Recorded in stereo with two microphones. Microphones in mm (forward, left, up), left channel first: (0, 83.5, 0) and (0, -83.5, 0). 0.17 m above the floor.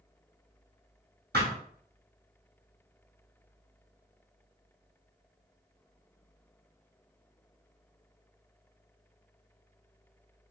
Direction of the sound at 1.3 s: 75° right (ahead or behind).